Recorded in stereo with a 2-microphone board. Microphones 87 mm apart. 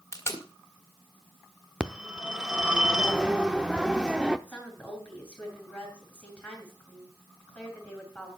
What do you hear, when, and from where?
0.1 s tape being pulled: 30° left (ahead or behind), 1.8 m
1.8 s a phone ringing: 10° right (ahead or behind), 0.7 m
4.5 s a woman speaking: 15° left (ahead or behind), 5 m